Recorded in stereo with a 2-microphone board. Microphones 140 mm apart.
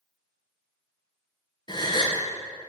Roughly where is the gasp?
Left.